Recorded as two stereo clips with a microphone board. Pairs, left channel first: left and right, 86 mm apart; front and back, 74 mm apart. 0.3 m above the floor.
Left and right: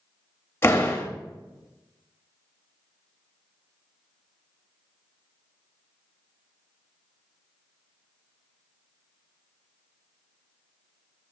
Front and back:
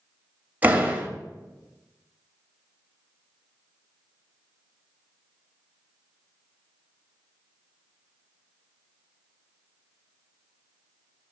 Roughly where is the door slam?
Behind left.